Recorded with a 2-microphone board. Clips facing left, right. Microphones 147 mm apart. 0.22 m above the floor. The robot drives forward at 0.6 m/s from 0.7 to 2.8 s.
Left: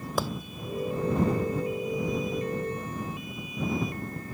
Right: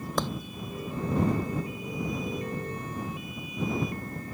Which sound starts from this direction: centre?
A clap, at 0.2 s.